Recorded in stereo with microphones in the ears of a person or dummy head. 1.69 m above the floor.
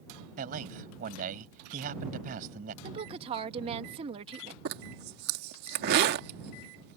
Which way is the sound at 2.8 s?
35° right (ahead or behind).